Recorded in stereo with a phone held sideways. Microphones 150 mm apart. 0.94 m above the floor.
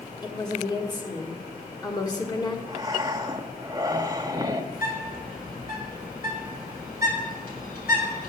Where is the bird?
80° left, 3.5 m.